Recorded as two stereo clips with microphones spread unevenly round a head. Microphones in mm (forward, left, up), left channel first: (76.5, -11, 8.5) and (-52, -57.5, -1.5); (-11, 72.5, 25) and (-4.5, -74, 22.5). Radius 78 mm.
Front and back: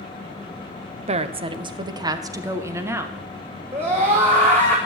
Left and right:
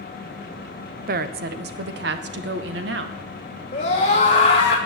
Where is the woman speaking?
115° right, 1.2 m; by 3.2 s 85° right, 2.5 m.